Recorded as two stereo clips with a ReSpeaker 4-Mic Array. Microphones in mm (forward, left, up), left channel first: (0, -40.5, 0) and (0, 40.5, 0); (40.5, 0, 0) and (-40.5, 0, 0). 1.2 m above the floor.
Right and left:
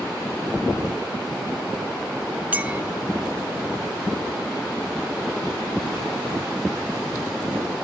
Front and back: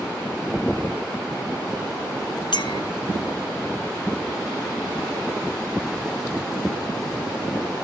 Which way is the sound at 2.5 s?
20° left.